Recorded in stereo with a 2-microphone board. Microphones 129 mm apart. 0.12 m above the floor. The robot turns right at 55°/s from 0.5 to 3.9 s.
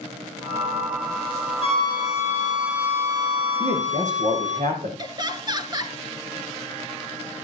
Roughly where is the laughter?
Right.